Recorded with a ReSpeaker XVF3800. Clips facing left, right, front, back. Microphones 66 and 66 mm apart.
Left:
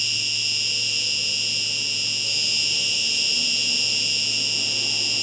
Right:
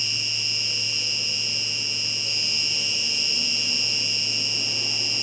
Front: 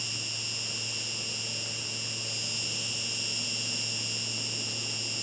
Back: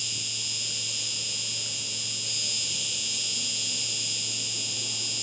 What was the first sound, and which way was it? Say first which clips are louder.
An insect: left 2 dB, even; 155° right.